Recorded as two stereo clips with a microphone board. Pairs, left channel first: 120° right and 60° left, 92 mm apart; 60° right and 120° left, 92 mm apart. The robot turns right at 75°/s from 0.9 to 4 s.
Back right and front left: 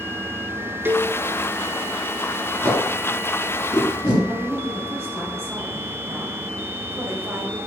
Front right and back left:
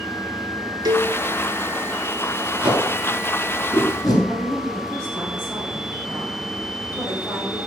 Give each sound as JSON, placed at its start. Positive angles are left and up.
{"t": 0.8, "sound": "a cowbell", "azimuth_deg": 120, "distance_m": 0.6}
{"t": 2.6, "sound": "tape being pulled", "azimuth_deg": -175, "distance_m": 2.5}
{"t": 4.3, "sound": "a woman speaking", "azimuth_deg": 5, "distance_m": 3.5}